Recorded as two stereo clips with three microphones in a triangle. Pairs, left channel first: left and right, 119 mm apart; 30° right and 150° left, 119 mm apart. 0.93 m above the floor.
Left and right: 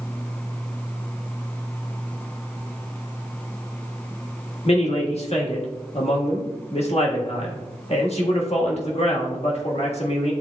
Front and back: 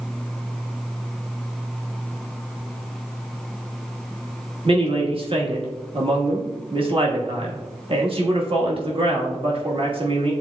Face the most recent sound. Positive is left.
turn(degrees=110)